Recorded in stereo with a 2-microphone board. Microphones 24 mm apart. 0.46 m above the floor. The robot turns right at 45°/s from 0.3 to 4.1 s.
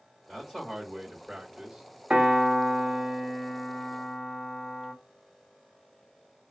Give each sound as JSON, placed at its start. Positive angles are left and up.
{"t": 0.3, "sound": "a man speaking", "azimuth_deg": 150, "distance_m": 1.1}
{"t": 2.1, "sound": "a piano", "azimuth_deg": -85, "distance_m": 0.9}